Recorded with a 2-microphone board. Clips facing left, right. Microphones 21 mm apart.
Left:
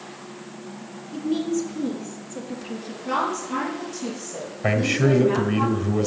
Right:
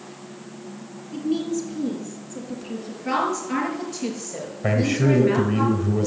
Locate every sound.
1.1 s a woman speaking: 10° right (ahead or behind), 3.5 m; by 3.0 s 10° left (ahead or behind), 3 m
3.0 s a woman speaking: 50° right (ahead or behind), 6 m
4.6 s a man speaking: 25° left (ahead or behind), 1.2 m